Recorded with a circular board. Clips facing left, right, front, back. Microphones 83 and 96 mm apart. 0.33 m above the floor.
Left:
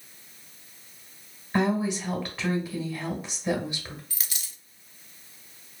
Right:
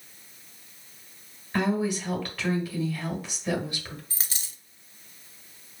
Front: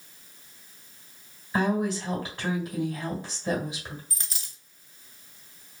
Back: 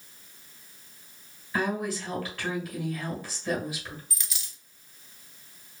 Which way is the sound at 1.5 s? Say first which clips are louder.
Left 1 dB, front 3 dB; 50° left.